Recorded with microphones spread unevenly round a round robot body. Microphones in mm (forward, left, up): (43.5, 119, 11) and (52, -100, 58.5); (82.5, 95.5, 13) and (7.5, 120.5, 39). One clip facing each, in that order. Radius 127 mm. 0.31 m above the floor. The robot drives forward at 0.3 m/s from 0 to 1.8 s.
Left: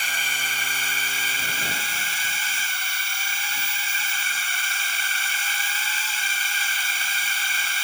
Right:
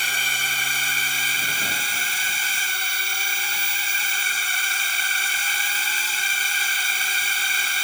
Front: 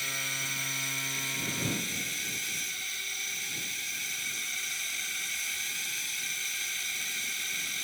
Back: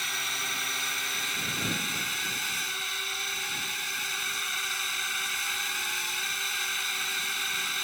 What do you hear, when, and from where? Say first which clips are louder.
0.0 s a drone: right 1 dB, back 3 dB; 145° right